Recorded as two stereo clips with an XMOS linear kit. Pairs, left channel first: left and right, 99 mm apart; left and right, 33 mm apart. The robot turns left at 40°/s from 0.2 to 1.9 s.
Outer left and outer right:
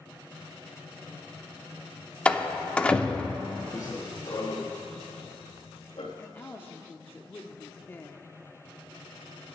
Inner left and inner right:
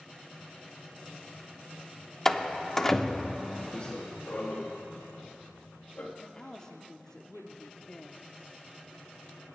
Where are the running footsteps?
30° left (ahead or behind), 3 m; by 6.1 s 60° left (ahead or behind), 2.5 m.